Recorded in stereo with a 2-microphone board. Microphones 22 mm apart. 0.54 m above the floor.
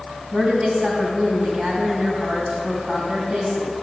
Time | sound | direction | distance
0.3 | a woman speaking | 65° right (ahead or behind) | 3.5 m